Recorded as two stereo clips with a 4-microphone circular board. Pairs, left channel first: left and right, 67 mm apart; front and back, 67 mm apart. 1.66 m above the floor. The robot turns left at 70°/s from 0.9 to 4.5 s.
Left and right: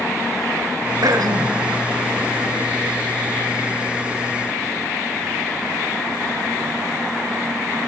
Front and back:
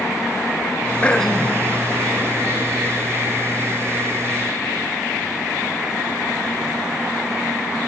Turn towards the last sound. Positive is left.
turn(degrees=45)